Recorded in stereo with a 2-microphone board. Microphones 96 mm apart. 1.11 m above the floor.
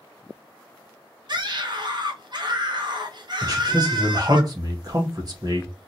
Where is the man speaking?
40° right (ahead or behind), 1.4 m.